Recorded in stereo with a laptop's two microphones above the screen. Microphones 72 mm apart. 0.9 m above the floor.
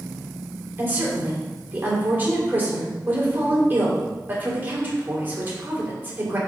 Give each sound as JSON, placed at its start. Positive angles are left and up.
{"t": 0.8, "sound": "a woman speaking", "side_deg": -25, "distance_m": 3.0}